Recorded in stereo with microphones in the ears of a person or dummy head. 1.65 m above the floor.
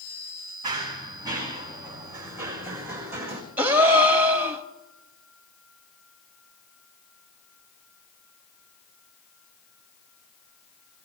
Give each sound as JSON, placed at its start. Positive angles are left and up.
{"t": 0.6, "sound": "running footsteps", "side_deg": -20, "distance_m": 6.0}
{"t": 3.6, "sound": "a gasp", "side_deg": -10, "distance_m": 1.1}